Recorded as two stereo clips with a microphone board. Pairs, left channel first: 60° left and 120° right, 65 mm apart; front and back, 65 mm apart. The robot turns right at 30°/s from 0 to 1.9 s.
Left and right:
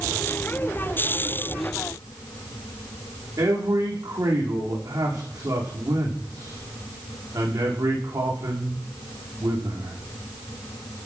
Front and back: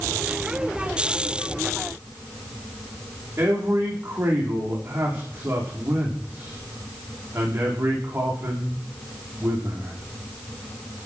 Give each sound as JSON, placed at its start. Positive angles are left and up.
{"t": 3.4, "sound": "a man speaking", "azimuth_deg": -125, "distance_m": 9.5}